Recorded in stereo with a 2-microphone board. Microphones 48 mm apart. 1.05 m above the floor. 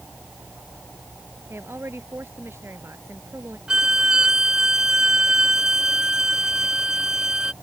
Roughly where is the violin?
Centre.